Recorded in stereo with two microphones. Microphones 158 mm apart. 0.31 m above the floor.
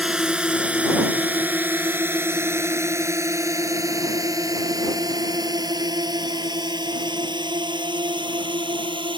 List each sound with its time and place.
0.0 s a drone: 5° right (ahead or behind); by 9.2 s 30° right (ahead or behind)